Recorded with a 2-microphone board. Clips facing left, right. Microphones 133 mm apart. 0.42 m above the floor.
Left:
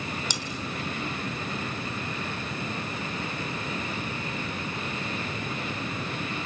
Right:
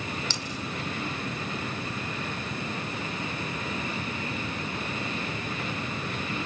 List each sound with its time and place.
0.3 s cutlery clinking: 15° left (ahead or behind), 2.5 m